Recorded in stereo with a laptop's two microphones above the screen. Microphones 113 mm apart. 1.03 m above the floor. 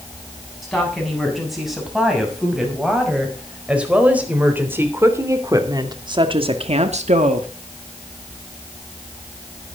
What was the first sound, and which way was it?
A woman speaking, centre (ahead or behind).